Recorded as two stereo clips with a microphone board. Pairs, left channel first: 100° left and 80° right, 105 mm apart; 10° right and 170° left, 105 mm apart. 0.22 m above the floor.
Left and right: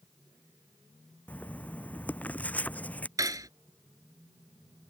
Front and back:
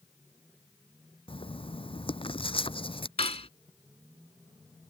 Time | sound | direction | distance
1.3 | writing | 25° left | ?
3.2 | cutlery clinking | 25° right | ?